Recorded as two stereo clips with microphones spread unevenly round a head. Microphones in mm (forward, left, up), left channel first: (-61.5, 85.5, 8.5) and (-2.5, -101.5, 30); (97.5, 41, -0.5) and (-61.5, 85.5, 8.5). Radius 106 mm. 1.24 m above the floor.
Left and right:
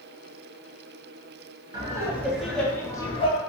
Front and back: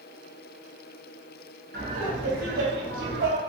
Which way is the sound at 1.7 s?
145° right.